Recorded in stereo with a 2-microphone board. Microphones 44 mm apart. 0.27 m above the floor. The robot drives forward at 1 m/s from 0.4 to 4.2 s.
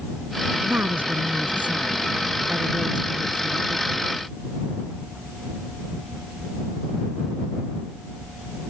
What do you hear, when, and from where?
0.7 s a woman speaking: 50° right (ahead or behind); by 4.1 s 20° right (ahead or behind)